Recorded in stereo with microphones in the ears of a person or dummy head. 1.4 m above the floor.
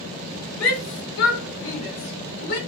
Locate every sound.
0.6 s a shout: 85° left, 3 m; by 2.6 s 55° left (ahead or behind), 4 m